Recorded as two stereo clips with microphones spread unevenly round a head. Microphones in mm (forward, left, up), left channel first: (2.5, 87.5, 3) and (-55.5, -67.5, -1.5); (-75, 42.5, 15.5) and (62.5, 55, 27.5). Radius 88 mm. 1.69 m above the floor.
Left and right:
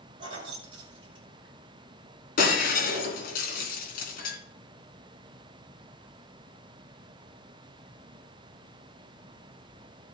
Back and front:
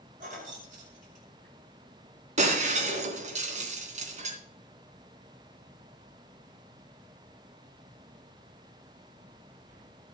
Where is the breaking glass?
30° left, 3 m.